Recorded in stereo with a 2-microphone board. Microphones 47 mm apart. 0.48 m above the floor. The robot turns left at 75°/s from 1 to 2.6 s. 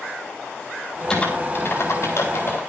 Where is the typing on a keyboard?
15° left (ahead or behind), 4 m; by 2.6 s 50° left (ahead or behind), 4 m.